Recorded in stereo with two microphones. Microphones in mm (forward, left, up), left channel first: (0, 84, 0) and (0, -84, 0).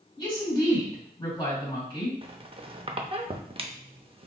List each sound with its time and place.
0.2 s a woman speaking: 25° left (ahead or behind), 2.5 m
2.2 s a squeak: 35° right (ahead or behind), 0.5 m